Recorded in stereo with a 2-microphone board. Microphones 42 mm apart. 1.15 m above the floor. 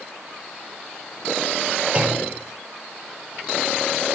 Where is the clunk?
30° right (ahead or behind), 3.5 m.